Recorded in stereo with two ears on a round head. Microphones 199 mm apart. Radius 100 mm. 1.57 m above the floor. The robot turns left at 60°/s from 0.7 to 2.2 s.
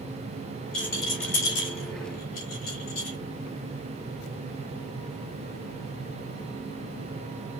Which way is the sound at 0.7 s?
5° left (ahead or behind).